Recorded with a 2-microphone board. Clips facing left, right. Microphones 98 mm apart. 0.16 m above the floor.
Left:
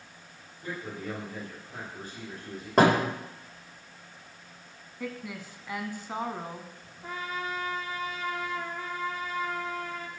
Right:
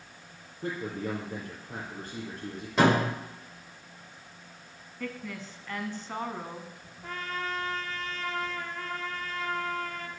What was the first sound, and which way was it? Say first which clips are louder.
A man speaking: right 3 dB; 55° right (ahead or behind).